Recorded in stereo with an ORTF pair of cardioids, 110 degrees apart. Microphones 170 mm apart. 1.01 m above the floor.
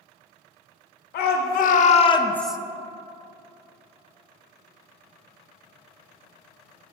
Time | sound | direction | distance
1.1 | a shout | 70° left | 1.2 m